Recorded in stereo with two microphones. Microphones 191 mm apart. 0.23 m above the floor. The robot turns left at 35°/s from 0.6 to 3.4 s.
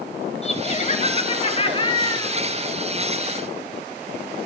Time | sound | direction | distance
0.4 | laughter | 95° left | 1.8 m